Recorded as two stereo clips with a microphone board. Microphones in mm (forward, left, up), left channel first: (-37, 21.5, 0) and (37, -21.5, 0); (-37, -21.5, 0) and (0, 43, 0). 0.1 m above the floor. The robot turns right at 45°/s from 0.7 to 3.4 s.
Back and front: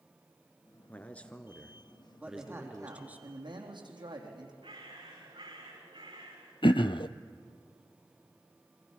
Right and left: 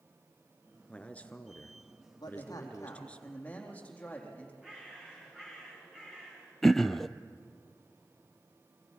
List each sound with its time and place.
0.9 s a man speaking: 170° right, 1.1 m; by 3.2 s 65° right, 1.1 m
2.2 s a man speaking: 105° right, 4 m; by 4.5 s 50° right, 4 m
4.6 s a bird: 20° right, 8 m
6.6 s throat clearing: 155° left, 0.6 m